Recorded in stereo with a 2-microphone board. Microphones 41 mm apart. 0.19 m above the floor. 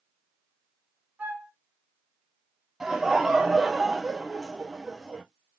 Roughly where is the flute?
Right.